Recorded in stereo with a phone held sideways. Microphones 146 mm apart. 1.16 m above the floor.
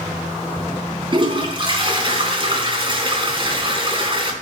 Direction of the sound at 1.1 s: 35° right (ahead or behind).